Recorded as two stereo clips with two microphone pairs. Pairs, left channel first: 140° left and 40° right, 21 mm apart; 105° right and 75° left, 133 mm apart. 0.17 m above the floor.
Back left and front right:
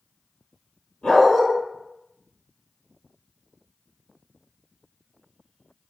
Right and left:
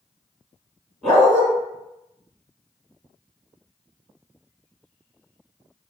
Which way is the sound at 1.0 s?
165° left.